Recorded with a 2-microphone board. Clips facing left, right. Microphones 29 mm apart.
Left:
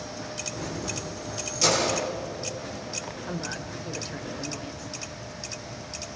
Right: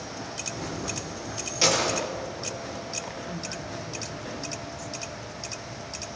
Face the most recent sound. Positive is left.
turn(degrees=30)  # may be behind; listen again after turning